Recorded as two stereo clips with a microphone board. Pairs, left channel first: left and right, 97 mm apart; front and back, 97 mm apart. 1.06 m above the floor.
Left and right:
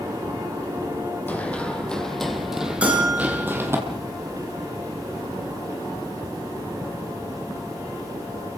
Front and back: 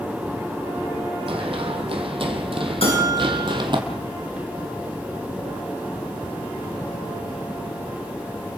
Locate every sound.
1.3 s running footsteps: 165° left, 3 m; by 3.8 s 150° right, 2.5 m
2.8 s a bell: 10° right, 10 m